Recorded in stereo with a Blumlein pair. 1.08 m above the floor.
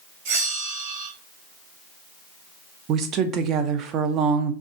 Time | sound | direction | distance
0.2 | a bell | 50° right | 1.5 m
2.9 | a woman speaking | 30° right | 0.6 m